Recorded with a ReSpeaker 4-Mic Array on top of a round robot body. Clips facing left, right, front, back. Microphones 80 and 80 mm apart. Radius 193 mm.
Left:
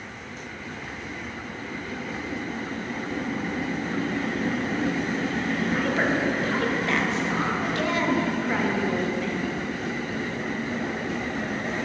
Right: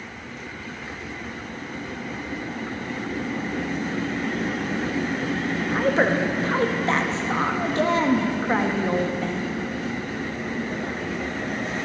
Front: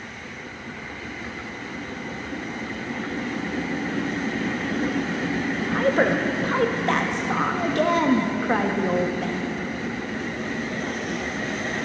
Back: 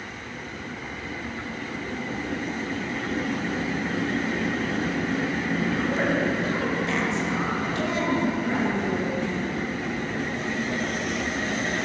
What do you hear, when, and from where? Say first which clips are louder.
5.7 s a woman speaking: right 5 dB, front 7 dB; 35° right, 1.5 m